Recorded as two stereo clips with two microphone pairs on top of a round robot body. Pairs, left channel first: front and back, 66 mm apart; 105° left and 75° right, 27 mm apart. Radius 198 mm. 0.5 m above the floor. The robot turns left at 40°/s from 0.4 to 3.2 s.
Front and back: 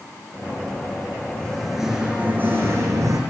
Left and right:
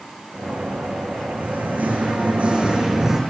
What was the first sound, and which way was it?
Singing, 75° right.